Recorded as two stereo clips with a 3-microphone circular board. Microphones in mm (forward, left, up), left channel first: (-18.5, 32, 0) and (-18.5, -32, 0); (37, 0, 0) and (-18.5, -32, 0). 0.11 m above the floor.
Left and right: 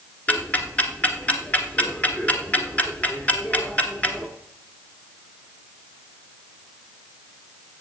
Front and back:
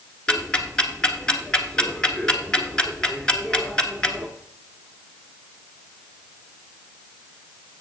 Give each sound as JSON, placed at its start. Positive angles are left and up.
{"t": 0.3, "sound": "ticking", "azimuth_deg": 85, "distance_m": 1.2}